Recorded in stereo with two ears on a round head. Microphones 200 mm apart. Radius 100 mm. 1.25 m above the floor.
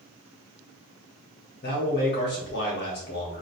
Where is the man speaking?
50° left (ahead or behind), 1.9 m.